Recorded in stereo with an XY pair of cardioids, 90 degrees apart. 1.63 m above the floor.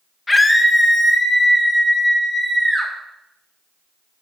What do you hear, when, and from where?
0.3 s a scream: 25° left, 1.5 m; by 2.9 s 10° right, 3 m